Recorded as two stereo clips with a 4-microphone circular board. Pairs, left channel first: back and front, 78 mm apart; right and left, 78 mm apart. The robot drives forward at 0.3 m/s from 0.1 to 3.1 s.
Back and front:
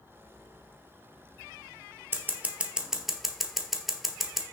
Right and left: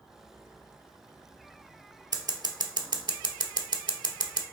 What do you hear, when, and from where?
2.1 s scissors: 60° left, 0.6 m; by 4.4 s 90° left, 0.5 m